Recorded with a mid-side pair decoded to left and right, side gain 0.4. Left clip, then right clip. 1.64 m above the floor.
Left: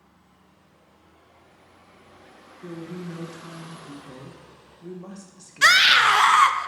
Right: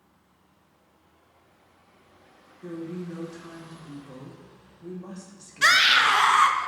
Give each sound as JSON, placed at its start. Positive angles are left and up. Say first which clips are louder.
{"t": 2.6, "sound": "a woman speaking", "louder": "right 1 dB", "azimuth_deg": 25, "distance_m": 1.5}
{"t": 5.6, "sound": "a scream", "louder": "left 3 dB", "azimuth_deg": 35, "distance_m": 0.8}